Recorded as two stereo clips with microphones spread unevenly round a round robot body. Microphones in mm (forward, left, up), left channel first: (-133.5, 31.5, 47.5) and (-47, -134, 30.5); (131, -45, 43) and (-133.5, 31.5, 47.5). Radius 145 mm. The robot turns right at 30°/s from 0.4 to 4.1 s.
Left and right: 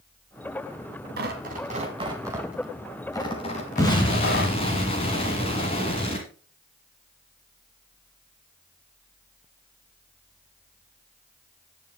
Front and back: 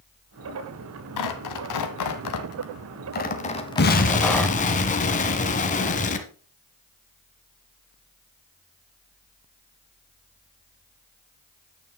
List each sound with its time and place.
1.2 s tearing paper: 20° right, 1.3 m; by 4.6 s 70° left, 1.3 m
3.8 s an explosion: 40° left, 1.4 m; by 6.3 s 50° left, 1.4 m